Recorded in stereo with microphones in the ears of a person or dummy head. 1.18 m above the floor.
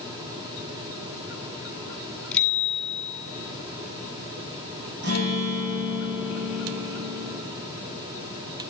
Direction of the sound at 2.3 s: 10° left (ahead or behind).